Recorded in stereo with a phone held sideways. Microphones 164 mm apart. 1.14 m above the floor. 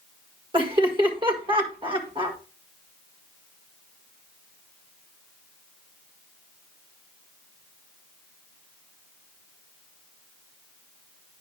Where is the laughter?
30° right (ahead or behind), 1.6 m.